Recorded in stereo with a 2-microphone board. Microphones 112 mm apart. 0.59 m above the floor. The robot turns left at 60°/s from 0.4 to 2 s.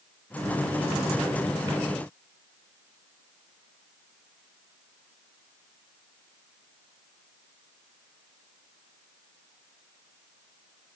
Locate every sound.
Only background noise.